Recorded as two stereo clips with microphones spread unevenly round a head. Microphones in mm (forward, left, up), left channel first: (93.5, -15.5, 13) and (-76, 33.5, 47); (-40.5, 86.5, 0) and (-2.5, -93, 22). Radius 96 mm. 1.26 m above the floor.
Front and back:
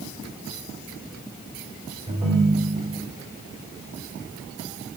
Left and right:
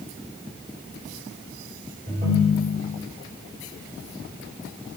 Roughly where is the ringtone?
Behind right.